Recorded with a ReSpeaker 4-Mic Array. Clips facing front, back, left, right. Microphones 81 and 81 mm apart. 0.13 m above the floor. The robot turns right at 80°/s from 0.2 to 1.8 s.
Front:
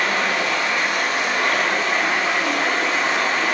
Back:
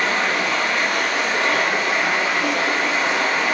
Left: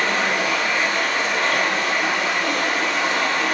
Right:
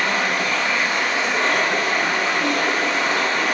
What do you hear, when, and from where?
0.0 s running water: 135° left, 1.2 m; by 3.5 s 100° right, 1.2 m